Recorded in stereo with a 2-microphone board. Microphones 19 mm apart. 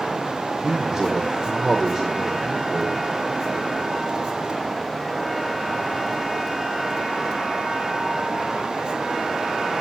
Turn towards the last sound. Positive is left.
turn(degrees=-30)  # may be behind; listen again after turning